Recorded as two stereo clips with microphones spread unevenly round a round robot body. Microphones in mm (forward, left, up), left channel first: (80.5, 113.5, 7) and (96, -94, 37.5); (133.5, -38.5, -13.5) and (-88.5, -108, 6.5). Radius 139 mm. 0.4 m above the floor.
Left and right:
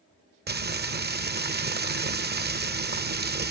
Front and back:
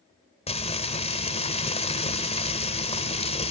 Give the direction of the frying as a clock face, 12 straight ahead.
1 o'clock.